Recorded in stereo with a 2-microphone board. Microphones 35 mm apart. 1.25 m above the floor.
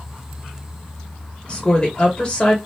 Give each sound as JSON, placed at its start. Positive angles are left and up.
{"t": 1.5, "sound": "a woman speaking", "side_deg": 25, "distance_m": 1.1}